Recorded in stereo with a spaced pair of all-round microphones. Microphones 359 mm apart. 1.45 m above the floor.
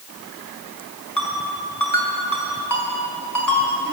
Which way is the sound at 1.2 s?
60° left (ahead or behind).